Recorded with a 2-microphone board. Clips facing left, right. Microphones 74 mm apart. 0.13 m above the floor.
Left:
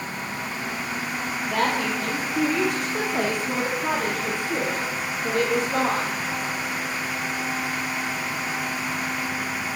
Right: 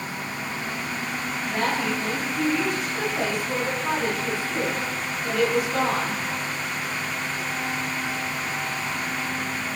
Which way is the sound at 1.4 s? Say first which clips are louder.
Left 2 dB; 70° left (ahead or behind).